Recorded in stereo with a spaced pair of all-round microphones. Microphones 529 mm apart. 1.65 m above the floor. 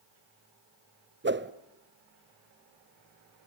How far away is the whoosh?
About 0.6 m.